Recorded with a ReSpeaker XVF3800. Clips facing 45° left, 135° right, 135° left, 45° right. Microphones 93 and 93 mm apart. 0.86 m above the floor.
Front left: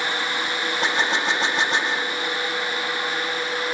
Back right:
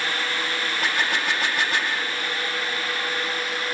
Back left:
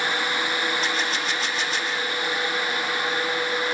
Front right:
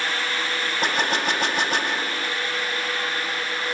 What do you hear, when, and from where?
0.8 s a gunshot: 20° right